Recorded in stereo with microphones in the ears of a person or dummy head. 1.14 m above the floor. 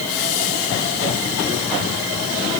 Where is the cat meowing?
I don't hear a cat meowing.